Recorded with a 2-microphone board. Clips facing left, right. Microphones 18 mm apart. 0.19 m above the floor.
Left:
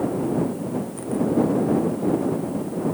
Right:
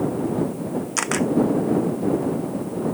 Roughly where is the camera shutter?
Right.